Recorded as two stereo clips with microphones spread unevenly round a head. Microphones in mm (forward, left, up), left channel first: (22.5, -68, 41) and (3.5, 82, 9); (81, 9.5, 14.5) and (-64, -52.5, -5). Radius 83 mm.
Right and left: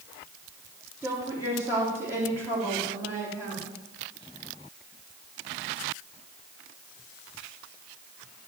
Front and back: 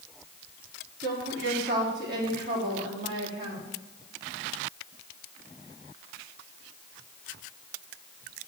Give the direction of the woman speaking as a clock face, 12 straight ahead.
6 o'clock.